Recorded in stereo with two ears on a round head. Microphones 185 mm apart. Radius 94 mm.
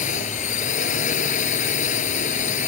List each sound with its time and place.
0.0 s a drone: 35° left (ahead or behind)